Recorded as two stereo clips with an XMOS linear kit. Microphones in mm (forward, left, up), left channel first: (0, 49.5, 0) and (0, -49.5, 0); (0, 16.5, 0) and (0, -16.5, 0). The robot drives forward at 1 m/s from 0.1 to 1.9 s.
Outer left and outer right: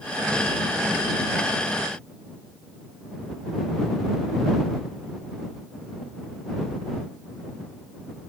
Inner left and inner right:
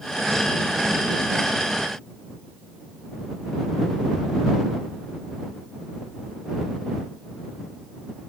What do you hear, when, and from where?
Only background noise.